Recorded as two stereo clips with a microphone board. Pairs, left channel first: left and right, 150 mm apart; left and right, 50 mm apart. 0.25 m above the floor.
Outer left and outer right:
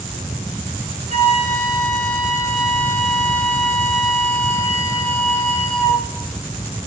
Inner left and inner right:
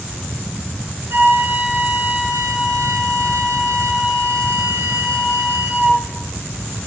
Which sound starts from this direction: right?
A flute, at 1.1 s.